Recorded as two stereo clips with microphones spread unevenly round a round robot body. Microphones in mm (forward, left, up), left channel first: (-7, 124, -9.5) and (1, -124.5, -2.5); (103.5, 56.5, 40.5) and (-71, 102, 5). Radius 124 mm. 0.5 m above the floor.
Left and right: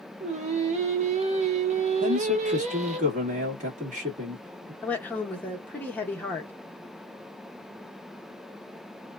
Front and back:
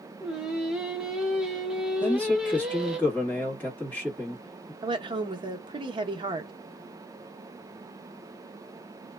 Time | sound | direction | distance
0.2 | singing | 130° right | 0.6 m
2.0 | a man speaking | 110° right | 1.3 m
4.8 | a woman speaking | 170° left | 0.7 m